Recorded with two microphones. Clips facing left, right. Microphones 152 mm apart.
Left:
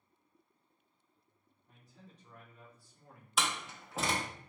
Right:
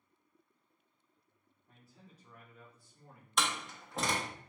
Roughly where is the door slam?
Centre.